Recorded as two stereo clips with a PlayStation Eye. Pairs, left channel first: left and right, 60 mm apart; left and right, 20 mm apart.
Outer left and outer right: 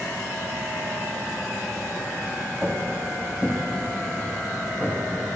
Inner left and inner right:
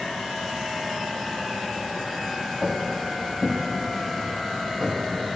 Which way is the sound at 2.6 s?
5° right (ahead or behind).